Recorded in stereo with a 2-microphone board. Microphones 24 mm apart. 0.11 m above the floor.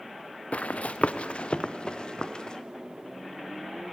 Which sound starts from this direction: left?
Running footsteps, at 0.5 s.